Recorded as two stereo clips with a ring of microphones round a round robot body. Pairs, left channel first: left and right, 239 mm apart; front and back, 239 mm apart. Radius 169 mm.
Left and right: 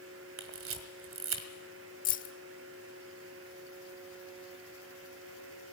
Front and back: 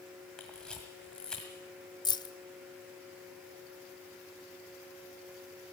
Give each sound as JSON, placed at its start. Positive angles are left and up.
{"t": 0.4, "sound": "a camera shutter", "azimuth_deg": -85, "distance_m": 1.7}
{"t": 2.0, "sound": "keys jangling", "azimuth_deg": 65, "distance_m": 0.9}